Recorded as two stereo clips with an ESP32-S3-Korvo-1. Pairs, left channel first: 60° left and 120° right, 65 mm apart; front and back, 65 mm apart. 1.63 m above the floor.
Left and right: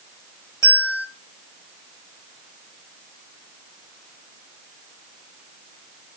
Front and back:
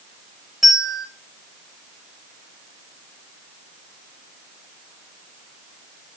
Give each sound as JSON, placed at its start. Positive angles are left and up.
{"t": 0.6, "sound": "a bell", "azimuth_deg": 90, "distance_m": 6.0}